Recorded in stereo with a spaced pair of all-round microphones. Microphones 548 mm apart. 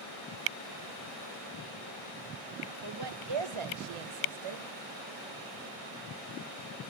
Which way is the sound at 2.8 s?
40° right (ahead or behind).